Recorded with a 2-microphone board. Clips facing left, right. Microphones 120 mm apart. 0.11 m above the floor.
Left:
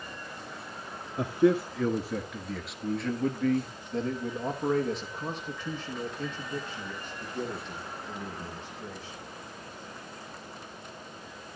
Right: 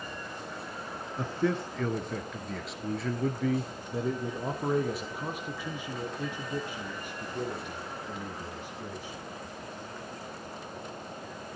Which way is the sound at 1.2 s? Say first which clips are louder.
Left 6 dB; 15° left (ahead or behind).